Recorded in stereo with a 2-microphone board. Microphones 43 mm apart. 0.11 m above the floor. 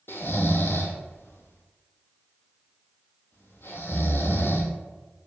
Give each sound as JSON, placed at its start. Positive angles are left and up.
{"t": 0.1, "sound": "snoring", "side_deg": 60, "distance_m": 0.6}